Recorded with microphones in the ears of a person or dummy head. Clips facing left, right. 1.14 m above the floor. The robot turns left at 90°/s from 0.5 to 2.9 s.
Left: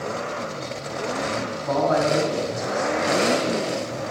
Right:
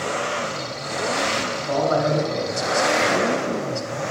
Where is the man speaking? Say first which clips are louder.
Even; 75° left, 3 m; by 4.0 s 45° right, 3 m.